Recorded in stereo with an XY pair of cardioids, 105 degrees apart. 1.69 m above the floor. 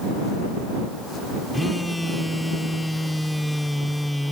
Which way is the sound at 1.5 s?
5° left.